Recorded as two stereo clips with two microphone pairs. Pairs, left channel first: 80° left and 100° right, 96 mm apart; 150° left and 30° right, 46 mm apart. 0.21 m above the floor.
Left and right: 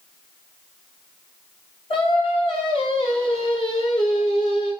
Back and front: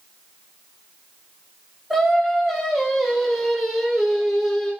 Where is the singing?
65° left, 0.7 m.